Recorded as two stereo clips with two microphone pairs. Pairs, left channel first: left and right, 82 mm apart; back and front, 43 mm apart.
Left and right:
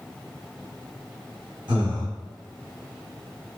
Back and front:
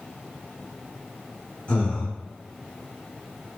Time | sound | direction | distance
1.7 | breathing | 120° right | 1.3 m